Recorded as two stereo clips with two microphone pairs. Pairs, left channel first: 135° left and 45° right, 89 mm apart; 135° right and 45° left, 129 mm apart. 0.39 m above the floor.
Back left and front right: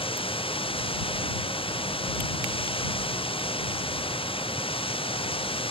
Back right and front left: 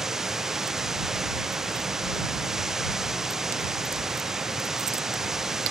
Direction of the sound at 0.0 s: 130° left.